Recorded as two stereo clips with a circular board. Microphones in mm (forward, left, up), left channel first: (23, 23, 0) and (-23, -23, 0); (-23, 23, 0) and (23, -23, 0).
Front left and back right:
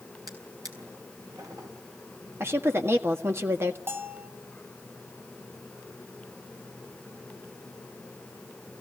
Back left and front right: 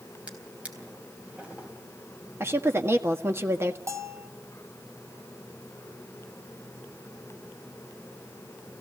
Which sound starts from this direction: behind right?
A drawer, at 0.3 s.